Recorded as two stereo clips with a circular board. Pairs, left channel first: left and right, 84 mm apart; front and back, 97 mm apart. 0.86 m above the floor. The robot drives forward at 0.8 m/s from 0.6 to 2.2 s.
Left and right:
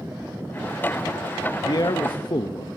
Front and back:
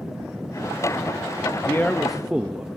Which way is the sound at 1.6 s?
55° left.